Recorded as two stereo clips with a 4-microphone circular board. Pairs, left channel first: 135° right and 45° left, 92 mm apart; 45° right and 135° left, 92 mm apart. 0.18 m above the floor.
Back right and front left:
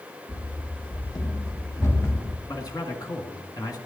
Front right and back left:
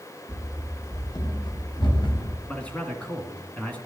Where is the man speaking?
115° right, 1.8 m.